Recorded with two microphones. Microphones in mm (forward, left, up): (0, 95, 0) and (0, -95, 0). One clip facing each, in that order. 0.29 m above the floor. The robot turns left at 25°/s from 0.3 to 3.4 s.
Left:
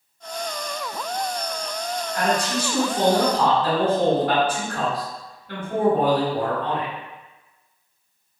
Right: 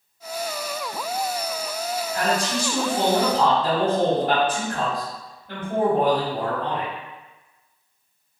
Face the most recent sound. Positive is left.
turn(degrees=-55)